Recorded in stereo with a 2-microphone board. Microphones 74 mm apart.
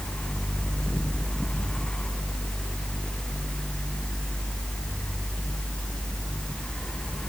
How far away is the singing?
I don't hear singing.